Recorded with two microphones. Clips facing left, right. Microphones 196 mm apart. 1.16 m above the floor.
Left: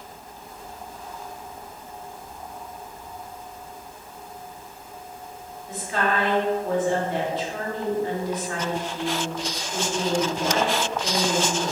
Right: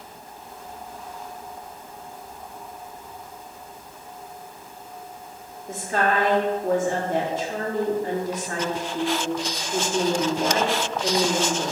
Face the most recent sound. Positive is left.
turn(degrees=-45)  # may be behind; listen again after turning